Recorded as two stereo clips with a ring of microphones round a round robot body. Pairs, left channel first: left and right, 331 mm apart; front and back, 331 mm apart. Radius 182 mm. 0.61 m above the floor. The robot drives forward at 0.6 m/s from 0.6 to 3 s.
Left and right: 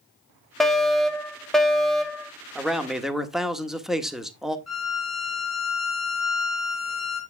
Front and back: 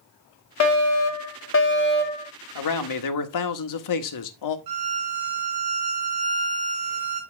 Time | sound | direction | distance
0.6 | a fire alarm | straight ahead | 2 m
2.5 | a man speaking | straight ahead | 1.7 m
4.7 | a violin | straight behind | 3.5 m